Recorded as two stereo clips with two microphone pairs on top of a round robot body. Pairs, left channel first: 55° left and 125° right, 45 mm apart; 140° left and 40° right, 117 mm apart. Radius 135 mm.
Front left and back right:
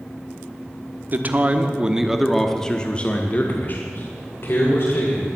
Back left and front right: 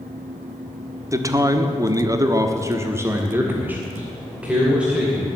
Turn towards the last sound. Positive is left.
turn(degrees=45)